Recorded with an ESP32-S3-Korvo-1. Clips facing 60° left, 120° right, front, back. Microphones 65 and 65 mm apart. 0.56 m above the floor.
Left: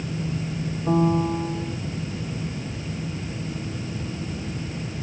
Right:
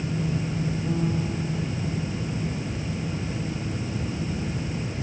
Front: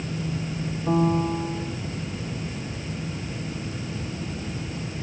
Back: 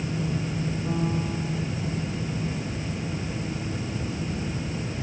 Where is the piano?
55° left.